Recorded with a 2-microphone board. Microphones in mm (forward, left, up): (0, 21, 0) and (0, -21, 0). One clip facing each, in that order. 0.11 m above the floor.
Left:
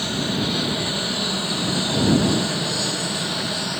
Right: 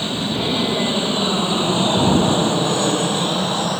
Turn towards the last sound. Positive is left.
turn(degrees=-45)  # may be behind; listen again after turning